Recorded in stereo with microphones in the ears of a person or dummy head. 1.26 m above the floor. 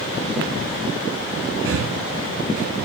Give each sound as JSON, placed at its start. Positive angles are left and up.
{"t": 1.6, "sound": "breathing", "side_deg": -65, "distance_m": 0.6}